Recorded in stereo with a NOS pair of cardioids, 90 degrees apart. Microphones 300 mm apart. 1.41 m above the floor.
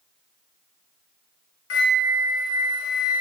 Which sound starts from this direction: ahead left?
A flute, at 1.7 s.